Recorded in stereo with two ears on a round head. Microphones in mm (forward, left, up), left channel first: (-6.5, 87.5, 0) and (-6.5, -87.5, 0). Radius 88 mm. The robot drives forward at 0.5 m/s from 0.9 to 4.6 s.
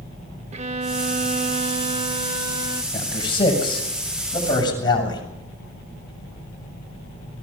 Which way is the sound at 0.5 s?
35° right (ahead or behind).